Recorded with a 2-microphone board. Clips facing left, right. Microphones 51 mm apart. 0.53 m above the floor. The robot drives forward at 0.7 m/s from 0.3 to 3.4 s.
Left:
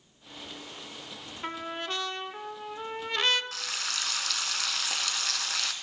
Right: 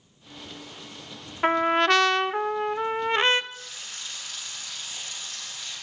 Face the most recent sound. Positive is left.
turn(degrees=85)